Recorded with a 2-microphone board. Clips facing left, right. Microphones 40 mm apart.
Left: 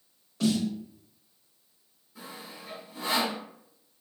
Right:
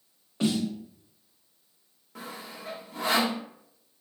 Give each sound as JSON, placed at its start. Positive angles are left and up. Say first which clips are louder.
{"t": 0.4, "sound": "a snare drum", "louder": "even", "side_deg": -30, "distance_m": 0.7}
{"t": 2.1, "sound": "sawing", "louder": "right 3 dB", "side_deg": -80, "distance_m": 0.8}